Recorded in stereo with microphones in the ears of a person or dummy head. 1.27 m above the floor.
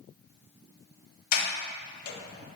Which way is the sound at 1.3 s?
50° left (ahead or behind).